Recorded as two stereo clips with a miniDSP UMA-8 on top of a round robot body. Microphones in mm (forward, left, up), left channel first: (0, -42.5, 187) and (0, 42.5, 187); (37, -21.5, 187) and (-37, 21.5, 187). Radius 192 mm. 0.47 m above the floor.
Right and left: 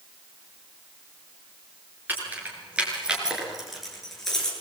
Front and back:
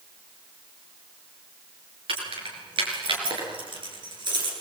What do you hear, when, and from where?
2.1 s keys jangling: 160° left, 7.5 m; by 4.5 s 175° right, 8 m